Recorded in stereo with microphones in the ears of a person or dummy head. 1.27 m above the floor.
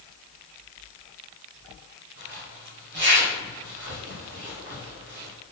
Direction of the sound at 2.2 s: 60° right (ahead or behind).